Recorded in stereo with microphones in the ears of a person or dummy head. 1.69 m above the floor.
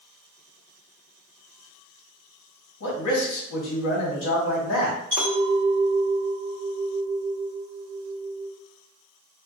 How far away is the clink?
About 1.7 m.